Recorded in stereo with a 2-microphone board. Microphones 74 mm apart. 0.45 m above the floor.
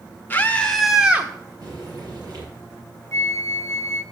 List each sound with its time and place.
0.3 s a scream: 25° left (ahead or behind), 1.2 m; by 1.3 s 25° right (ahead or behind), 1.0 m
1.6 s frying: 50° right (ahead or behind), 5.5 m
3.1 s a flute: 40° left (ahead or behind), 0.6 m